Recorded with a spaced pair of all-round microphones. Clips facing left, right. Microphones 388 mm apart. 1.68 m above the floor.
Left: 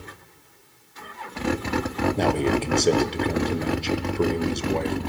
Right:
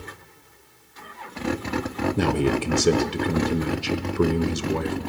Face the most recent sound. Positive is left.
turn(degrees=-20)  # may be behind; listen again after turning